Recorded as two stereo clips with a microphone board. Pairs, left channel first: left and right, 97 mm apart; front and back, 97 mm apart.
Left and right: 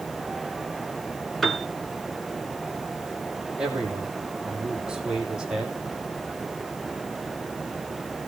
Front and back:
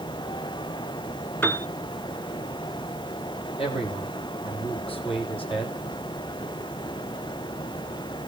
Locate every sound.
1.4 s a piano: straight ahead, 1.2 m
3.6 s a man speaking: 10° right, 4.5 m